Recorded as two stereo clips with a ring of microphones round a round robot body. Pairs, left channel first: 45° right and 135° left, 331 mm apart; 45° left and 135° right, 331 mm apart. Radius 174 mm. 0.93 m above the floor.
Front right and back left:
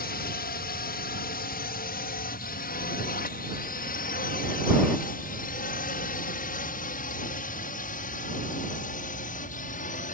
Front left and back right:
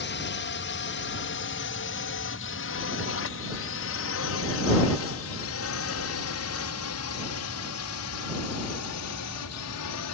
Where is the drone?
5° left; by 10.1 s 20° left.